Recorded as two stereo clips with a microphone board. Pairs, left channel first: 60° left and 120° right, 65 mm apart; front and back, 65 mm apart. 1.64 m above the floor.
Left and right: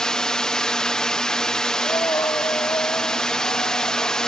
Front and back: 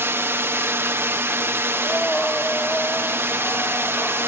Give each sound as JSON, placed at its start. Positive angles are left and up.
{"t": 0.0, "sound": "a drone", "azimuth_deg": 135}
{"t": 1.7, "sound": "breathing", "azimuth_deg": 75}